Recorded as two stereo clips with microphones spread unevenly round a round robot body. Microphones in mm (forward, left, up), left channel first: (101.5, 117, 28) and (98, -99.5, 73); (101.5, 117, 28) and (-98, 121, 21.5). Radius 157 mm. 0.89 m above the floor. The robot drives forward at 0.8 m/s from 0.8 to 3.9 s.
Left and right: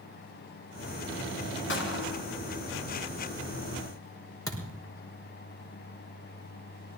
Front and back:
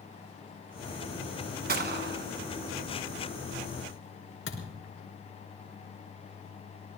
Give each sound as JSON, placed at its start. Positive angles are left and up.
{"t": 1.7, "sound": "a gunshot", "azimuth_deg": 145, "distance_m": 1.3}
{"t": 4.5, "sound": "a thud", "azimuth_deg": 15, "distance_m": 4.5}